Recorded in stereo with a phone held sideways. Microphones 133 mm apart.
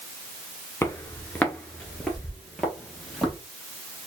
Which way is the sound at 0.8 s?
15° left (ahead or behind).